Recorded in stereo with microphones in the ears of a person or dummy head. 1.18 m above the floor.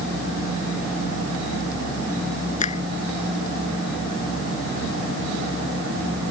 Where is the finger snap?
40° left (ahead or behind).